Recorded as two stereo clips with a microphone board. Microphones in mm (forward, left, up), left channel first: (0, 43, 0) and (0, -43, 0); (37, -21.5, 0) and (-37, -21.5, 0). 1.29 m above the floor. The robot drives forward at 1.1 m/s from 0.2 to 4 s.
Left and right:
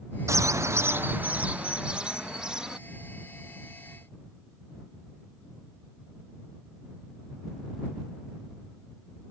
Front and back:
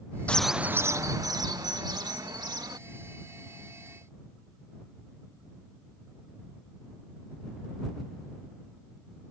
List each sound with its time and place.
0.3 s a bird: 65° right; by 2.8 s 170° right